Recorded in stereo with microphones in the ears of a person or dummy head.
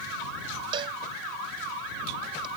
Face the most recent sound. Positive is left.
turn(degrees=-30)  # may be behind; listen again after turning